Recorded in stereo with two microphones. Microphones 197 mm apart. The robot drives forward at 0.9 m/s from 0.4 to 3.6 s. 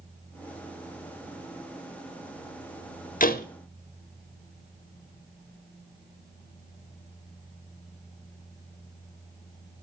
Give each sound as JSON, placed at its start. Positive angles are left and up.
{"t": 3.2, "sound": "a door slam", "side_deg": 45, "distance_m": 0.9}